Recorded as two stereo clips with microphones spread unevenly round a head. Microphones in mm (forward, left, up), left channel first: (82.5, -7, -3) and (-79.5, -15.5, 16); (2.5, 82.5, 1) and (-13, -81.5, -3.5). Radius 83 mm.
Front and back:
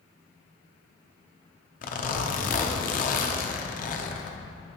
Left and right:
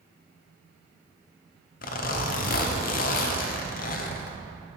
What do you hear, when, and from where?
1.8 s a zipper: 50° left, 0.6 m